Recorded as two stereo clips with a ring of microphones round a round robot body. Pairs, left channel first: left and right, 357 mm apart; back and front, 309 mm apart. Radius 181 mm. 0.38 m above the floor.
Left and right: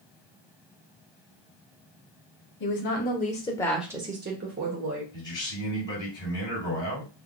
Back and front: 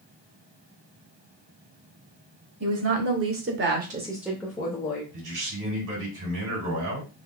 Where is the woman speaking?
35° left, 1.9 m; by 5.0 s 120° right, 1.5 m.